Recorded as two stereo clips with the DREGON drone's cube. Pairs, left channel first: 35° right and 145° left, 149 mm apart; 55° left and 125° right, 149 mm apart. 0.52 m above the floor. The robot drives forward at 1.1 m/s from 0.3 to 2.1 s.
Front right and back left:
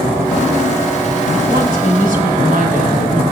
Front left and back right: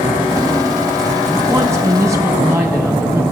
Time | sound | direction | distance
1.5 | a woman speaking | 165° left | 4 m